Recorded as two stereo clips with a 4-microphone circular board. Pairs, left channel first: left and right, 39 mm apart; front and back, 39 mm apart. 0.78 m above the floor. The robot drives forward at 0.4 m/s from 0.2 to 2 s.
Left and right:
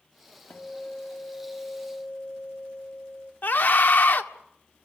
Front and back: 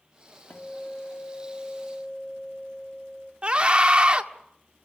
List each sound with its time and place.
0.5 s a guitar: 45° left, 1.4 m; by 3.3 s 70° left, 1.1 m
3.4 s a scream: 115° left, 1.6 m